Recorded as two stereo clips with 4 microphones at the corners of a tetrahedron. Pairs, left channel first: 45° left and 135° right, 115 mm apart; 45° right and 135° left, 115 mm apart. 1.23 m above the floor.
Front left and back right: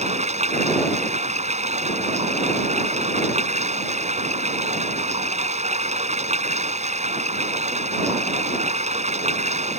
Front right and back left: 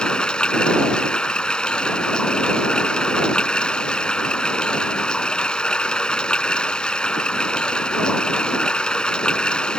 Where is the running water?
125° right.